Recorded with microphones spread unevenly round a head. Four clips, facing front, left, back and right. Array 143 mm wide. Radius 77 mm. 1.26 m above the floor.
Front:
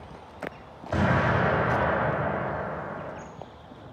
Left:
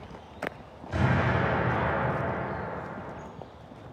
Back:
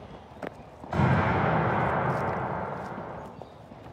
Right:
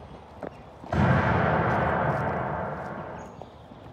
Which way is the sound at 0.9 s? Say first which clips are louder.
Right 3 dB, front 1 dB; 20° right.